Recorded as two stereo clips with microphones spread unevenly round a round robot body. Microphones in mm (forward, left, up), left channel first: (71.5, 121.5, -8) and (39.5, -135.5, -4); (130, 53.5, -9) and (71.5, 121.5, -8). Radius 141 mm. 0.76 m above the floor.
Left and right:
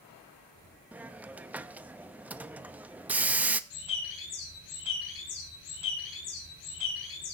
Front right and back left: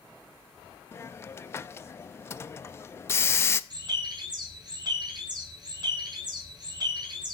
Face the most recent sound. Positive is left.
turn(degrees=90)